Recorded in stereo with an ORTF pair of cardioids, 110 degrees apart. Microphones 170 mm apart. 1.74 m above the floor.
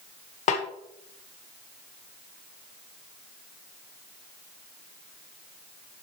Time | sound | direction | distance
0.5 | a snare drum | 45° left | 1.6 m